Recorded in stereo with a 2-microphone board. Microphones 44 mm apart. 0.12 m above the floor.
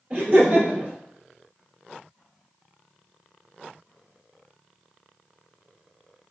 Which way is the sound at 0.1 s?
30° right (ahead or behind).